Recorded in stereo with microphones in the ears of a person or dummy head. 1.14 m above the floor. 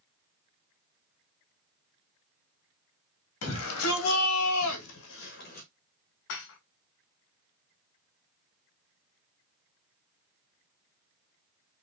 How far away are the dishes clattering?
About 0.8 m.